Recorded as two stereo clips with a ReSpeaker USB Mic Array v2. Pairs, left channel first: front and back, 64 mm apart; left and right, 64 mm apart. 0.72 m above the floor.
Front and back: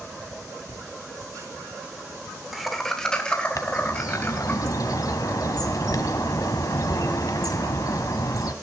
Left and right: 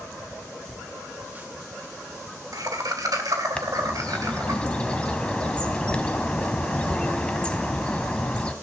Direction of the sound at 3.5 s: 20° left.